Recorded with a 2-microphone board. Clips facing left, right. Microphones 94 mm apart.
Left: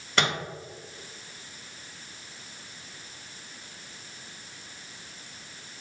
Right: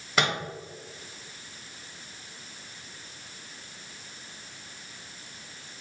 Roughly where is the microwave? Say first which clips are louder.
Even; centre.